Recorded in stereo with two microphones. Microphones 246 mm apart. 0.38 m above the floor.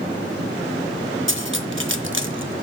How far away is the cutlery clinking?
About 0.6 m.